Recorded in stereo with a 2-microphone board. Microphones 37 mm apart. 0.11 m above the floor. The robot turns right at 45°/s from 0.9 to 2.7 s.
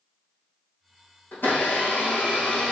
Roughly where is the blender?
Ahead left.